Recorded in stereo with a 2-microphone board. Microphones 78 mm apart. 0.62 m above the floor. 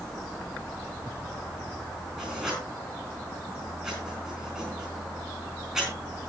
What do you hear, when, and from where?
2.2 s writing: 10° right (ahead or behind), 9.5 m